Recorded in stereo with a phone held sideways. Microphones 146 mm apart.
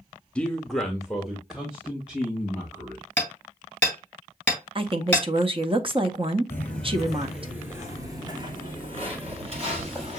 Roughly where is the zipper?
I don't hear a zipper.